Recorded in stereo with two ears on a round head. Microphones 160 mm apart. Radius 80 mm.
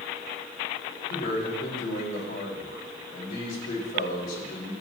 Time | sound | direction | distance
1.1 | a man speaking | 50° left (ahead or behind) | 4 m